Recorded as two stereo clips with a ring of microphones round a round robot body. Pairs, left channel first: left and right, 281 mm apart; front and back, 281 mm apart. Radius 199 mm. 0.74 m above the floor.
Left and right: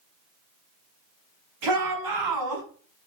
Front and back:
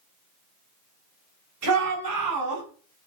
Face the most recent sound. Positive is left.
turn(degrees=-130)